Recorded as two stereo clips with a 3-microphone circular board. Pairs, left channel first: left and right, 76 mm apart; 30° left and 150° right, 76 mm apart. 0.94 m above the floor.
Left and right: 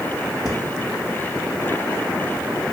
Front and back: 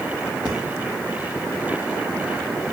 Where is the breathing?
135° left, 2 m.